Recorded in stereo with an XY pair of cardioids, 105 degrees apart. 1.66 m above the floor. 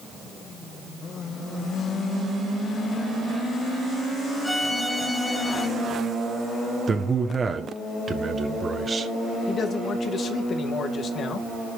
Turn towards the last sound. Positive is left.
turn(degrees=50)